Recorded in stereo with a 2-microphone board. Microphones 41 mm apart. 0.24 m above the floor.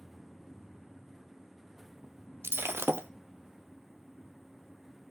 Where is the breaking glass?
70° right (ahead or behind), 0.6 m.